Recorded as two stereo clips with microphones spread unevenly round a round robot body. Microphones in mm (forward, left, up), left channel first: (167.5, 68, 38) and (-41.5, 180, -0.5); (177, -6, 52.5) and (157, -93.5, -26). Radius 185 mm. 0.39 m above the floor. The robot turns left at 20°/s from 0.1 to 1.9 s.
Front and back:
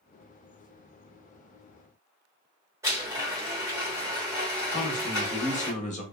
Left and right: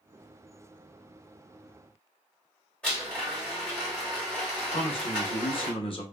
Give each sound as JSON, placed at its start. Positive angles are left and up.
{"t": 2.8, "sound": "a blender", "azimuth_deg": -150, "distance_m": 1.2}
{"t": 4.7, "sound": "a man speaking", "azimuth_deg": 0, "distance_m": 0.8}